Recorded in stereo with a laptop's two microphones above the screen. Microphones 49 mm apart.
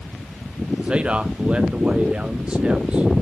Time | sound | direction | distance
0.8 | a man speaking | 25° right (ahead or behind) | 0.6 m